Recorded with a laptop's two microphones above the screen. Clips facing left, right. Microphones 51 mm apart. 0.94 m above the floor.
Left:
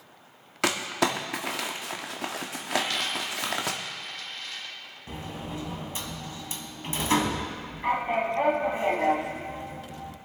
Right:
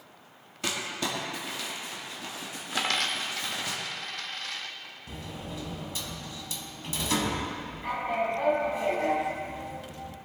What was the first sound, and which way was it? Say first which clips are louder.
Crumpling: left 6 dB; 80° left.